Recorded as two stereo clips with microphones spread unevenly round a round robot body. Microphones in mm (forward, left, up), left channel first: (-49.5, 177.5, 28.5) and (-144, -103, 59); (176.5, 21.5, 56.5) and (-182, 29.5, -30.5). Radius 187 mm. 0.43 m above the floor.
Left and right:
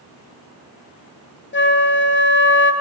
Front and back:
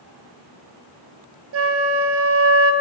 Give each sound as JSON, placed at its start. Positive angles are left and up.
{"t": 1.5, "sound": "a flute", "azimuth_deg": 125, "distance_m": 2.5}